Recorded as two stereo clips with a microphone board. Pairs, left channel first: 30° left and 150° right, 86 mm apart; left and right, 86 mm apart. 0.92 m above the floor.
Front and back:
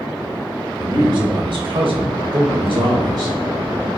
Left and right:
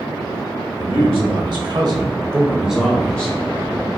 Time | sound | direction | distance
0.8 | a man speaking | 110° right | 1.6 m